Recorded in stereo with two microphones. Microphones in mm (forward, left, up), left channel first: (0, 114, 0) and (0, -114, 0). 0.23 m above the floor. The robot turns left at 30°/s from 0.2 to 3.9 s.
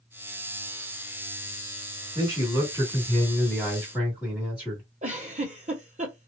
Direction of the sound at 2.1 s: 45° left.